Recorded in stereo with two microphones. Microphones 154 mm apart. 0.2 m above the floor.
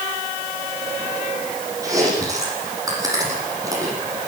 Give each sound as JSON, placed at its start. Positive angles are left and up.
{"t": 1.8, "sound": "chewing", "side_deg": -20, "distance_m": 9.5}